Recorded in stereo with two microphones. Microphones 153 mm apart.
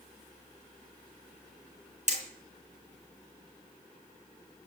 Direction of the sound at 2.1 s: 50° right (ahead or behind).